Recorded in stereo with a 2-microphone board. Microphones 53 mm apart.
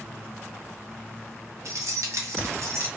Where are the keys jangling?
70° right (ahead or behind), 0.7 m; by 2.9 s 60° right (ahead or behind), 1.0 m.